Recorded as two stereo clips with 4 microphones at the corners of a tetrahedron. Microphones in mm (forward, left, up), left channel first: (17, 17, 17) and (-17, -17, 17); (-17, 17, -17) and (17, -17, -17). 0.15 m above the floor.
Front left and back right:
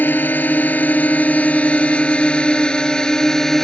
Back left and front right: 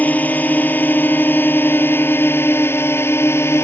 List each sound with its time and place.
0.0 s a drone: 85° left; by 3.6 s 125° left